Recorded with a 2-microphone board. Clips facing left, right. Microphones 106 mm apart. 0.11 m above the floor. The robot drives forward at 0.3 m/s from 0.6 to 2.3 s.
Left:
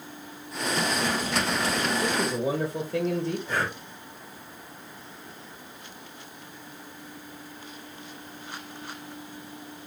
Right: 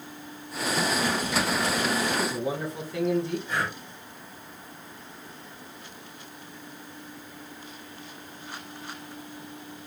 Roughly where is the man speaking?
Left.